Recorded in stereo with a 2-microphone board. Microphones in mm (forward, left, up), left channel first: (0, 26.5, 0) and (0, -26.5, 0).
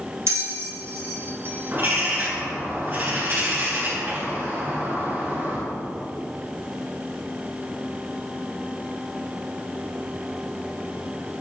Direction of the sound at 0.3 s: 55° right (ahead or behind).